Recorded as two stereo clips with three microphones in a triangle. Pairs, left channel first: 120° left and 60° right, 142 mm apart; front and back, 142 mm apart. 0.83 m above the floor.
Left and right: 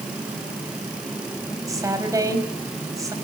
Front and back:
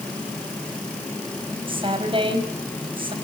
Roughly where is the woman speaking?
Behind right.